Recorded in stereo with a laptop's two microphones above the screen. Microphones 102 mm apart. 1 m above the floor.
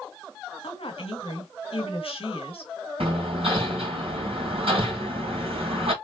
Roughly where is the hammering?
Right.